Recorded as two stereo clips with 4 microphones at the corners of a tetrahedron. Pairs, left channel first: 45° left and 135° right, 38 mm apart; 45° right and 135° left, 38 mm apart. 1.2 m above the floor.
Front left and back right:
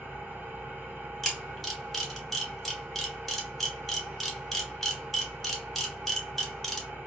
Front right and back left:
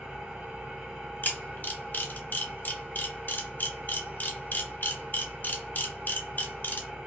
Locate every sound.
0.0 s an engine running: 160° right, 1.3 m
1.2 s a camera shutter: 40° right, 1.0 m